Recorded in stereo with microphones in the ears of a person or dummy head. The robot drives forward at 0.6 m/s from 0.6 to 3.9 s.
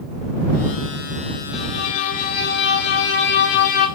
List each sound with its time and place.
1.5 s a violin: 35° left (ahead or behind), 1.3 m; by 3.9 s 45° left (ahead or behind), 1.0 m